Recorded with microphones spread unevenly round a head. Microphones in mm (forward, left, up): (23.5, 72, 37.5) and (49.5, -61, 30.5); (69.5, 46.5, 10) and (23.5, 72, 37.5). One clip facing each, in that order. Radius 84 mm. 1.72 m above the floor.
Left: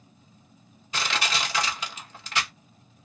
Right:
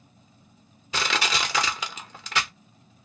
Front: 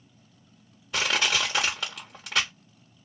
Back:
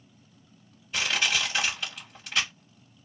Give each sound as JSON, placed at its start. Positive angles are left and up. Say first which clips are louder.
{"t": 0.9, "sound": "crushing", "louder": "right 2 dB, front 2 dB", "azimuth_deg": -90, "distance_m": 1.0}